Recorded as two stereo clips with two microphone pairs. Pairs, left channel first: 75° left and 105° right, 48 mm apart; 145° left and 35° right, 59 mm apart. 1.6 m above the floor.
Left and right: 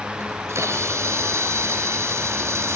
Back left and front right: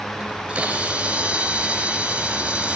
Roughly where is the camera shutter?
Right.